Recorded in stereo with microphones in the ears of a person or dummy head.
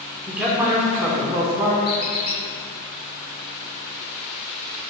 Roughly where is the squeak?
Left.